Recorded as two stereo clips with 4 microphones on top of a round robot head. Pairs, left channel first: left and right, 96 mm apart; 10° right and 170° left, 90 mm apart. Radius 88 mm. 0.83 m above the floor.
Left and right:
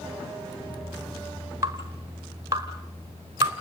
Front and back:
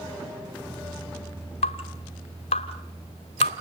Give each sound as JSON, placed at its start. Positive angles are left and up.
{"t": 1.6, "sound": "dripping", "azimuth_deg": -25, "distance_m": 1.1}